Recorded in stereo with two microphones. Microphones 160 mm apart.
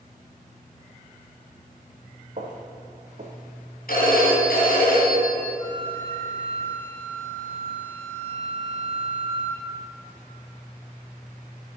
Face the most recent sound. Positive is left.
turn(degrees=35)  # may be behind; listen again after turning